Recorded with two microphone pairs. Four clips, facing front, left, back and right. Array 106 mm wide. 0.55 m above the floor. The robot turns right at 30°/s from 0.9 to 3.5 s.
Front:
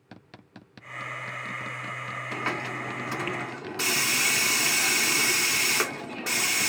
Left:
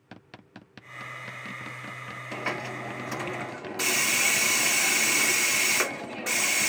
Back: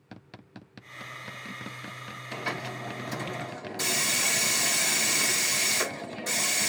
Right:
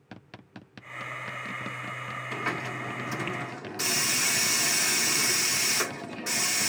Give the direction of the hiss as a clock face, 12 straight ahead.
1 o'clock.